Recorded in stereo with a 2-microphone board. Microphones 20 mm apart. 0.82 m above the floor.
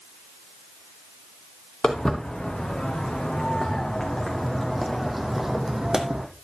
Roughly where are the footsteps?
Left.